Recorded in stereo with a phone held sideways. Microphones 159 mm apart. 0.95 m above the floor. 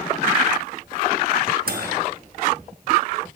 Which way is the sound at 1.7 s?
65° right (ahead or behind).